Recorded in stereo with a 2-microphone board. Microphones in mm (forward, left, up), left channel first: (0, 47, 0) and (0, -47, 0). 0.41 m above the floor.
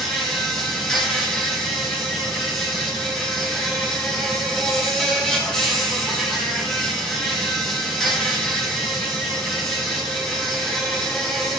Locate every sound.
0.0 s an insect: 5° left (ahead or behind), 0.8 m